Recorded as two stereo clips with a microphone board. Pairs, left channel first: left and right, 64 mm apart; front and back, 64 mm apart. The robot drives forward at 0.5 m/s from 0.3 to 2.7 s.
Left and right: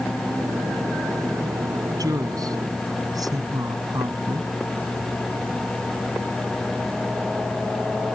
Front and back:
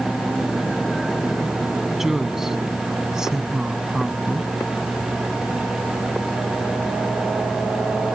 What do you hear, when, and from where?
1.9 s a woman speaking: 95° right; by 4.5 s 100° right